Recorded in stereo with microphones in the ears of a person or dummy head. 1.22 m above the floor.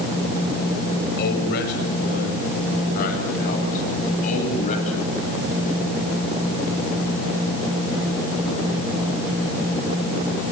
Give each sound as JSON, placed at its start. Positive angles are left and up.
{"t": 1.2, "sound": "a man speaking", "side_deg": 60, "distance_m": 7.5}